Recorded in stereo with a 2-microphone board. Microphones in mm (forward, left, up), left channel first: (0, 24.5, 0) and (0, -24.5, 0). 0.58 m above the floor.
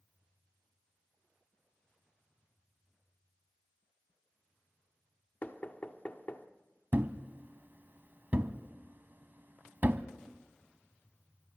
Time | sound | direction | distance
5.4 | knocking | 35° left (ahead or behind) | 1.3 m
6.9 | a thud | 40° right (ahead or behind) | 1.0 m